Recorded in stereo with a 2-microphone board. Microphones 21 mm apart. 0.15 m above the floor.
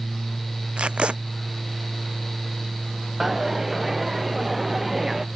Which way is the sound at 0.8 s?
70° right (ahead or behind).